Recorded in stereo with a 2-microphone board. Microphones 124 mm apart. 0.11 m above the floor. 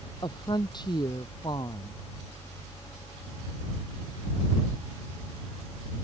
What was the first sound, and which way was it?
A woman speaking, 35° left (ahead or behind).